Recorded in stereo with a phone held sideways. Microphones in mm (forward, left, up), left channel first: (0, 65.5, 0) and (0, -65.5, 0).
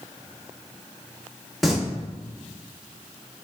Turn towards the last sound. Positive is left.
turn(degrees=0)  # may be behind; listen again after turning